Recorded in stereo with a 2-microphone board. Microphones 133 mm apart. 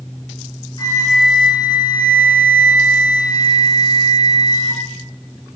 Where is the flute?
30° left (ahead or behind), 0.6 m.